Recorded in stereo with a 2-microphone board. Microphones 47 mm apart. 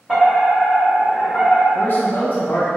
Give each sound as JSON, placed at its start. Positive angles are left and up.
{"t": 0.1, "sound": "a fire alarm", "side_deg": 5, "distance_m": 1.6}
{"t": 1.8, "sound": "a man speaking", "side_deg": 40, "distance_m": 0.5}